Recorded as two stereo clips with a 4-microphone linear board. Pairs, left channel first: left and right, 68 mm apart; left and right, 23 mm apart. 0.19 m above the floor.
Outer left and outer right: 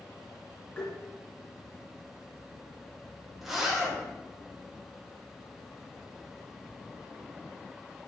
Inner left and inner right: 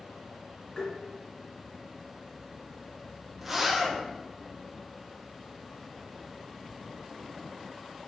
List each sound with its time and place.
0.8 s tapping: 35° left (ahead or behind), 1.5 m
3.4 s a zipper: 5° right (ahead or behind), 1.3 m